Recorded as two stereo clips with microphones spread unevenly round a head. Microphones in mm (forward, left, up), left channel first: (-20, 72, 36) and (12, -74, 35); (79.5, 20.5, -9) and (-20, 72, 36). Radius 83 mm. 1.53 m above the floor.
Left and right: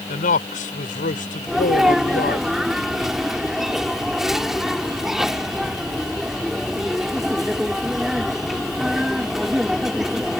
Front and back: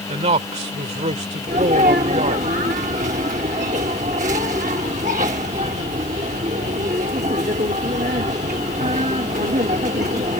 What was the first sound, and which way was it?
A man speaking, 135° left.